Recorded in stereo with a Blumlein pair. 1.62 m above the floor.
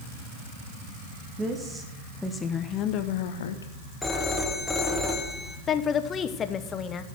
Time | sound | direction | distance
1.4 | a woman speaking | 15° right | 1.5 m
4.0 | a phone ringing | 5° left | 1.8 m
5.7 | a woman speaking | 25° left | 1.0 m